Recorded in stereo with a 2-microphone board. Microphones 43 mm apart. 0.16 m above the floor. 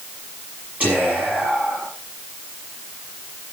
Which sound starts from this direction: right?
Whispering, at 0.8 s.